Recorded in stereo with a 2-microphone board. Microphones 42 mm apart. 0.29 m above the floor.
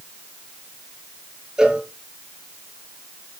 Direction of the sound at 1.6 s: 15° right (ahead or behind).